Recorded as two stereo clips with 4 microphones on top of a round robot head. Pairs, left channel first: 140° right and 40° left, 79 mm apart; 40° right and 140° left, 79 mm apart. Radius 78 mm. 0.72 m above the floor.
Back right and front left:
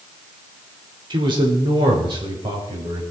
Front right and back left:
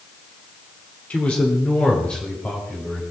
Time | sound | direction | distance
1.1 | a man speaking | 30° left | 3 m